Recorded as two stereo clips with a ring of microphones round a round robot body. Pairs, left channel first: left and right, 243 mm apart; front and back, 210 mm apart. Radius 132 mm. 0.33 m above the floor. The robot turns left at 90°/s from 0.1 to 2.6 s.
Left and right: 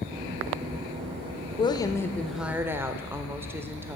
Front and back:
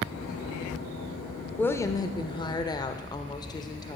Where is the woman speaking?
70° left, 0.8 m; by 4.0 s 25° right, 0.8 m.